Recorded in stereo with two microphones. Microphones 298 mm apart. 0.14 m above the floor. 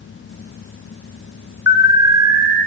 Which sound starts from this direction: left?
An alarm, at 1.7 s.